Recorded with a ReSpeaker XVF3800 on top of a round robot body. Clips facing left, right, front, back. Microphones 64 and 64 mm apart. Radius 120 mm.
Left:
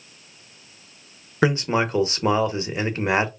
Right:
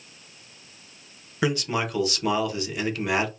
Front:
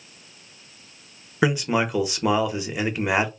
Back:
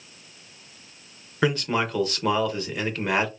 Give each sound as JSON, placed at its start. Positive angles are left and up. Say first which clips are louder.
{"t": 1.4, "sound": "a man speaking", "louder": "left 5 dB, front 2 dB", "azimuth_deg": 65, "distance_m": 0.9}